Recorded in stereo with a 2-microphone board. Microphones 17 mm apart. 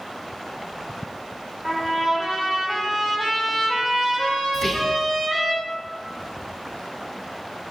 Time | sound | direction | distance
1.6 | a trumpet | 5° right (ahead or behind) | 3 m
4.5 | whispering | 20° left (ahead or behind) | 1.0 m